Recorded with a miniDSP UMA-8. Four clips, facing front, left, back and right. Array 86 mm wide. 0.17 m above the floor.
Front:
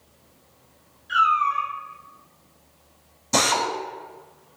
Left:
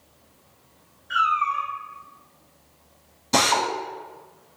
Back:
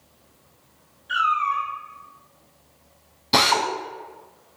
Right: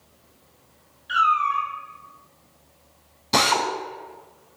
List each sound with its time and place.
1.1 s a cat meowing: 105° right, 1.7 m
3.3 s a drill: 165° right, 0.6 m